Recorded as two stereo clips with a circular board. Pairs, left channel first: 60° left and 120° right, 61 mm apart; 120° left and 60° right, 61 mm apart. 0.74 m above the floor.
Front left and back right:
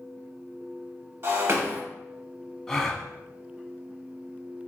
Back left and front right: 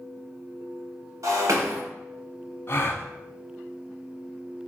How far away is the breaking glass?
About 1.7 m.